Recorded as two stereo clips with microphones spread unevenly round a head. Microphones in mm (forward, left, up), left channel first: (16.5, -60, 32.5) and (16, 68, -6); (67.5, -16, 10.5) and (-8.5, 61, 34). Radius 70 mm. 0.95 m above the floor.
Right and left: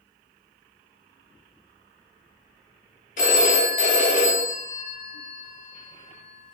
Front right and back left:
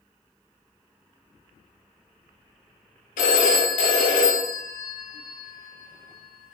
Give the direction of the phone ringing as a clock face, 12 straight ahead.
3 o'clock.